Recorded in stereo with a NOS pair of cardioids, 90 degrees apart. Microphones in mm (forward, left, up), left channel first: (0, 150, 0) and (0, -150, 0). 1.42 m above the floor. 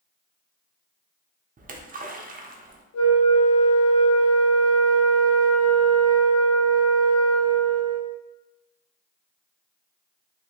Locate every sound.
1.6 s a splash: 30° right, 0.8 m
2.9 s a flute: 55° left, 1.3 m